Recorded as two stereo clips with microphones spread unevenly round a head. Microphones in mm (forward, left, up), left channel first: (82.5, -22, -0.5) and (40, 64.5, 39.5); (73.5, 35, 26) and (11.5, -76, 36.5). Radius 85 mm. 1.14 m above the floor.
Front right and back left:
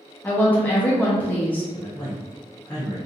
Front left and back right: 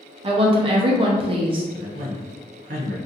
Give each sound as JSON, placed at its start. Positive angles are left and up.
{"t": 0.2, "sound": "a woman speaking", "azimuth_deg": -90, "distance_m": 0.5}
{"t": 1.7, "sound": "a man speaking", "azimuth_deg": -130, "distance_m": 1.1}